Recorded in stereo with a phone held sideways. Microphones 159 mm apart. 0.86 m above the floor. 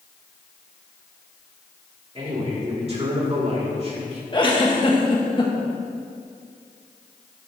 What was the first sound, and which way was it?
A man speaking, 40° right (ahead or behind).